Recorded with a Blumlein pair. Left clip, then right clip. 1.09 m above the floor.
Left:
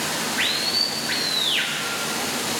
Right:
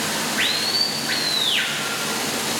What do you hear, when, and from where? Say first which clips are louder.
0.0 s running water: right 1 dB; 5° right, 0.8 m